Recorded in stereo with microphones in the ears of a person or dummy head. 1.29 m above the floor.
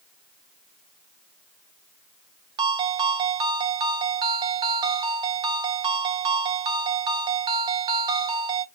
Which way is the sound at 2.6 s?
25° right (ahead or behind).